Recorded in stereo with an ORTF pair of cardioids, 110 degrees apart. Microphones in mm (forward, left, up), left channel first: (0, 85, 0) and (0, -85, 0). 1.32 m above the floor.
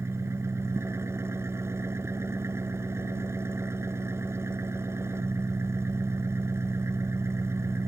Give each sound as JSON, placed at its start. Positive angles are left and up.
{"t": 0.0, "sound": "an engine running", "azimuth_deg": -15}